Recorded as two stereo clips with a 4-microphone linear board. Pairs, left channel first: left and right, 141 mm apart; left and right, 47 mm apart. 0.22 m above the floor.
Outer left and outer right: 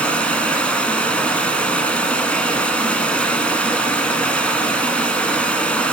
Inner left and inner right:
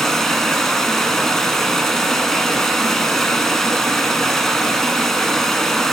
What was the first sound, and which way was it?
Running water, 10° left (ahead or behind).